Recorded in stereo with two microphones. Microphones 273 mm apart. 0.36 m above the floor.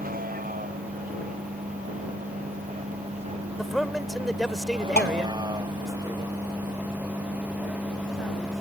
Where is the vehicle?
35° right (ahead or behind); by 8.6 s centre (ahead or behind).